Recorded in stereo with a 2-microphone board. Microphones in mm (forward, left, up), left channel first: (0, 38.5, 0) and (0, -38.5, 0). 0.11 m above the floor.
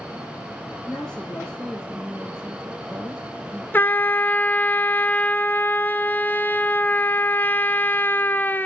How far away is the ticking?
I don't hear ticking.